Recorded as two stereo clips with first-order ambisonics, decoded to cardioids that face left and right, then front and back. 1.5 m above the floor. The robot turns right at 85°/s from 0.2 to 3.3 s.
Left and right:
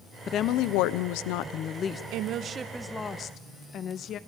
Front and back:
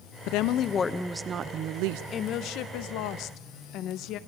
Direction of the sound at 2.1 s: 65° right.